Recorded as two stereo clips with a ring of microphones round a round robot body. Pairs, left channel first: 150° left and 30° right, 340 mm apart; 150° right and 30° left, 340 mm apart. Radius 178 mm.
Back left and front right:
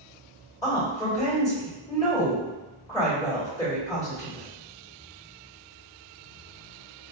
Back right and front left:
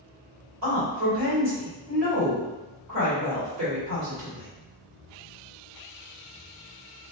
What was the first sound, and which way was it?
A woman speaking, 70° left.